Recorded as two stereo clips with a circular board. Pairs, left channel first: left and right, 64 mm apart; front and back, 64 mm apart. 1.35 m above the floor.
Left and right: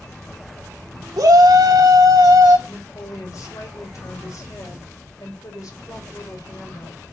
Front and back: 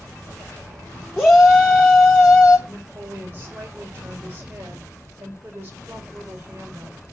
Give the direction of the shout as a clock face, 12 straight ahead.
2 o'clock.